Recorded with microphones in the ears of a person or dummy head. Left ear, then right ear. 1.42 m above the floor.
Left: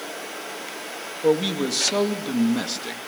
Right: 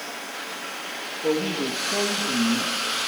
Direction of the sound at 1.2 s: 80° left.